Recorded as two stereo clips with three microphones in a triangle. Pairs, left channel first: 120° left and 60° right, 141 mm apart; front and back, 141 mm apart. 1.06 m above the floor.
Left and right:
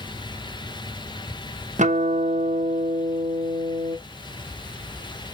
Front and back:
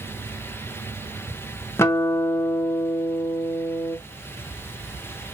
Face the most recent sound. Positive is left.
turn(degrees=-70)